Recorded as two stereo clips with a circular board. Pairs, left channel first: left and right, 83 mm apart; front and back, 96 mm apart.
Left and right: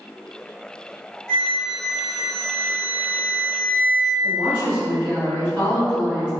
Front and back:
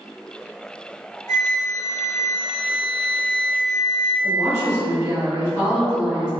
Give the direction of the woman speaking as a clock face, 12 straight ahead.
11 o'clock.